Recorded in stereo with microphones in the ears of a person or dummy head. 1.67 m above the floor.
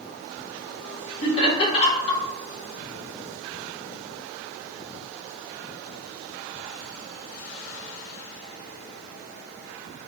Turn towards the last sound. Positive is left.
turn(degrees=30)  # may be behind; listen again after turning